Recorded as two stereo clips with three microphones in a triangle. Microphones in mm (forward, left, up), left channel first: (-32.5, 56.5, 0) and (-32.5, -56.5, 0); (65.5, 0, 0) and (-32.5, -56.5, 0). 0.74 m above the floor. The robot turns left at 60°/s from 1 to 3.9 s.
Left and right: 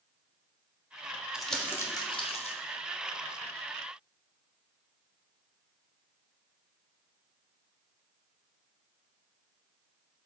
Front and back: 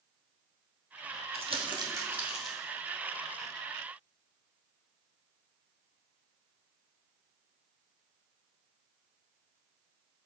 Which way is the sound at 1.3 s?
175° right.